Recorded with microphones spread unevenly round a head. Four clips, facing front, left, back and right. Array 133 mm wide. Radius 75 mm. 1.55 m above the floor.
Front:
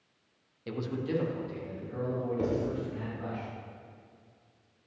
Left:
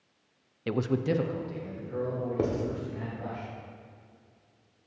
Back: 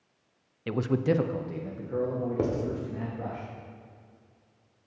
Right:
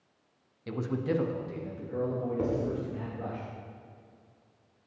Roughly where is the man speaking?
Left.